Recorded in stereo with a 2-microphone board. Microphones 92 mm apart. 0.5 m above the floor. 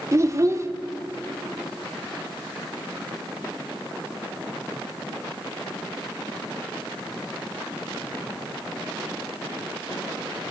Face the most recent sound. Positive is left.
turn(degrees=-35)  # may be behind; listen again after turning